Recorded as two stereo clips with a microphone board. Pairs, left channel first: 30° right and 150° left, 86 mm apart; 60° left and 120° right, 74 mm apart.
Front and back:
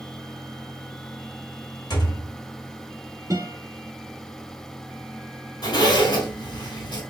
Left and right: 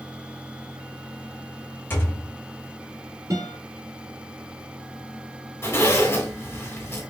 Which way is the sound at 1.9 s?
Straight ahead.